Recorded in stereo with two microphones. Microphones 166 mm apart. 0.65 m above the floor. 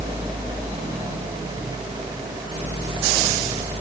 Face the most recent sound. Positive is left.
No sound to turn to.